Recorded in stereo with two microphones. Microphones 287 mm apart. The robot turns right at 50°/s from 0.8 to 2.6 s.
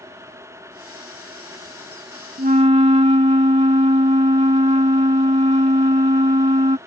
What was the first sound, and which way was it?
A flute, 35° right (ahead or behind).